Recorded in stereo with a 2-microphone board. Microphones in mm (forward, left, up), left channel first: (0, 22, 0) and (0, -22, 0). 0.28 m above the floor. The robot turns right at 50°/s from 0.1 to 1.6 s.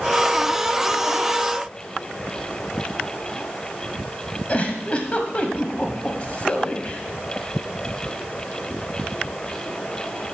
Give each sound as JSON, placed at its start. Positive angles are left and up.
{"t": 4.5, "sound": "a giggle", "side_deg": 30, "distance_m": 0.8}